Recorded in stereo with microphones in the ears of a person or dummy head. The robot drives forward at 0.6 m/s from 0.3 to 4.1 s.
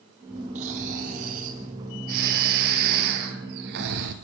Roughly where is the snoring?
Right.